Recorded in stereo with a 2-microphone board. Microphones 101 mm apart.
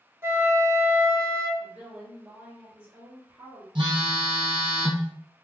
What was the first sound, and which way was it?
A flute, 30° right (ahead or behind).